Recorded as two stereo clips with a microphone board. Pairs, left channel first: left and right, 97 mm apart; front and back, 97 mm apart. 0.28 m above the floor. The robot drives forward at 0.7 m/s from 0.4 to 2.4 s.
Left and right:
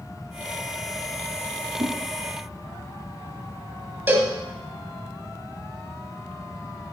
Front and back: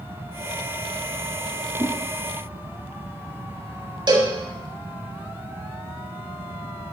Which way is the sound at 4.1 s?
155° right.